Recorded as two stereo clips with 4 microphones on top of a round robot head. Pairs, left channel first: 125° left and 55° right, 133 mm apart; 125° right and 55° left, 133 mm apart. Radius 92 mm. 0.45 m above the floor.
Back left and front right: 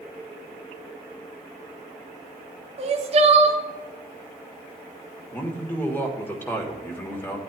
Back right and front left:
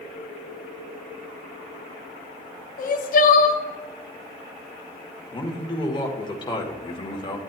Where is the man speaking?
165° right, 1.6 m.